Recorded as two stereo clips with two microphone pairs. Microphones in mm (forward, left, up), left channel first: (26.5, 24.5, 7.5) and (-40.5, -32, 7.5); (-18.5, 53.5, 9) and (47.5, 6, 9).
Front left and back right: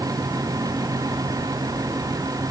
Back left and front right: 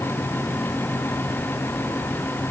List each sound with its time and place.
Only background noise.